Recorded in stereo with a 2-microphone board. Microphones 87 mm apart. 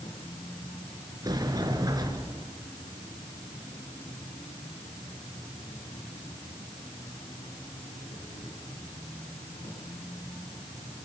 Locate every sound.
0.0 s an insect: 70° left (ahead or behind), 7.5 m
1.2 s a sliding door: 45° right (ahead or behind), 4 m